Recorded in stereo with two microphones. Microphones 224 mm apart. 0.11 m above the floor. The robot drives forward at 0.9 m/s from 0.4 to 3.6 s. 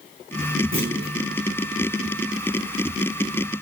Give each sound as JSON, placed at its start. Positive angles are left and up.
{"t": 0.7, "sound": "a clunk", "side_deg": -65, "distance_m": 7.0}